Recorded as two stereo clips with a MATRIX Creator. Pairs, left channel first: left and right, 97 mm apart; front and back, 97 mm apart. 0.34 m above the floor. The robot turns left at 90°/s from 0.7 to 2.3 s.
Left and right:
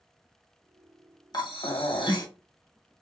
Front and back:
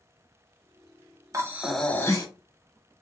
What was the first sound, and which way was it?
Breathing, 125° left.